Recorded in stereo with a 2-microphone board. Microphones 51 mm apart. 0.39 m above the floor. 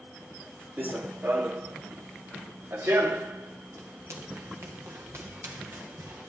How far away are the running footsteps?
About 0.9 m.